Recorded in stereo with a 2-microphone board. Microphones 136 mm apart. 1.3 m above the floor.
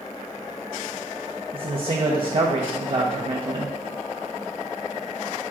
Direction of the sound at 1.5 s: 40° right (ahead or behind).